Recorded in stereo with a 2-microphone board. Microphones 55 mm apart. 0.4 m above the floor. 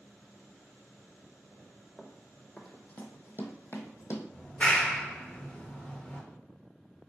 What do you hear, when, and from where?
2.0 s running footsteps: centre (ahead or behind), 0.8 m; by 4.2 s 60° left (ahead or behind), 0.8 m
4.3 s a clap: 20° left (ahead or behind), 0.5 m